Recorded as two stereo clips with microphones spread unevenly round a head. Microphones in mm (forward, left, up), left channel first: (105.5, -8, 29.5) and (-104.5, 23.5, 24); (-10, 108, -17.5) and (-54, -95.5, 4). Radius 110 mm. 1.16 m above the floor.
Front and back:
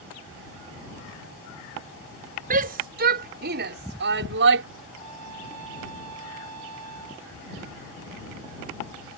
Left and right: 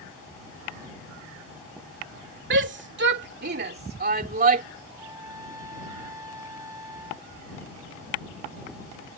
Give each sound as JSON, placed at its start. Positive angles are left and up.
{"t": 2.5, "sound": "a shout", "azimuth_deg": -135}
{"t": 4.9, "sound": "a trumpet", "azimuth_deg": -175}